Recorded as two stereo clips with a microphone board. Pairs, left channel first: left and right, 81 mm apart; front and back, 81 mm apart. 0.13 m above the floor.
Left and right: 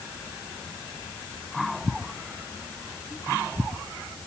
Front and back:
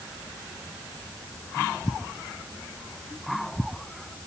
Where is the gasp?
I don't hear a gasp.